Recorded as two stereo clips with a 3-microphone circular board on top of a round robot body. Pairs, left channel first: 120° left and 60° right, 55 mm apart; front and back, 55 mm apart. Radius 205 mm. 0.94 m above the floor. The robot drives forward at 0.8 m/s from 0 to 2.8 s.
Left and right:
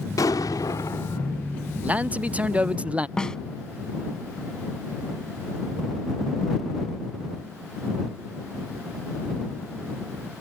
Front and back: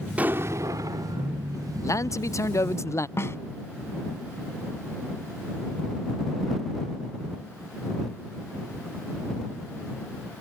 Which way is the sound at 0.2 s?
110° left.